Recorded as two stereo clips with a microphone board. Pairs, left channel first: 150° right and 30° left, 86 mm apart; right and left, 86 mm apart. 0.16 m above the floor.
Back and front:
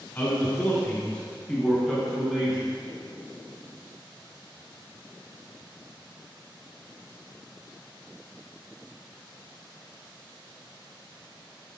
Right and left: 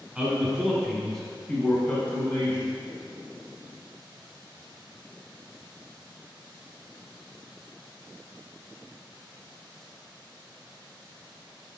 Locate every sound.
0.1 s a man speaking: 165° left, 1.9 m; by 2.7 s 45° right, 2 m